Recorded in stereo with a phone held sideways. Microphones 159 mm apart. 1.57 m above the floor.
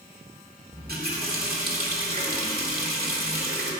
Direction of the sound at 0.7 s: 70° right (ahead or behind).